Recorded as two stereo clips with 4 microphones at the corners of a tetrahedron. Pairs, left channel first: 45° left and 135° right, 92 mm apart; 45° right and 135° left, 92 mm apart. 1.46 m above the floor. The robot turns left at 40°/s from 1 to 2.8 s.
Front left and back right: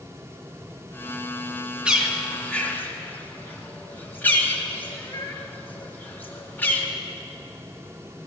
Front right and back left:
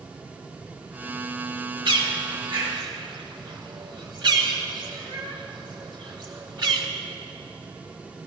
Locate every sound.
1.9 s a bird: 150° left, 1.4 m; by 6.9 s 110° left, 1.4 m